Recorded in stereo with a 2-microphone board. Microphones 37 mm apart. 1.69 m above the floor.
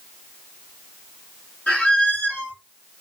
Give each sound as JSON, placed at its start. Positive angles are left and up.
{"t": 1.7, "sound": "a squeak", "side_deg": 40, "distance_m": 2.0}